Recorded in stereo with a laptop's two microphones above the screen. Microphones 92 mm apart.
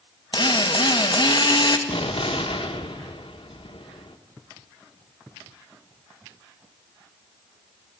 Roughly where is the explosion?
Left.